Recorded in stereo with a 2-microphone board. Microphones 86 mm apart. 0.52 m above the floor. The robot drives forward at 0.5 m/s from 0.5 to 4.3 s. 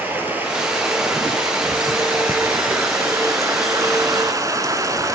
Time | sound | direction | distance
0.0 | running water | 20° right (ahead or behind) | 3.5 m